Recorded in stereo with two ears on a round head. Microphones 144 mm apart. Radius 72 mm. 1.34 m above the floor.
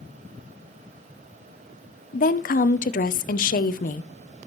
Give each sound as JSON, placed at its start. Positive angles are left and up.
{"t": 2.1, "sound": "a woman speaking", "side_deg": 60, "distance_m": 0.7}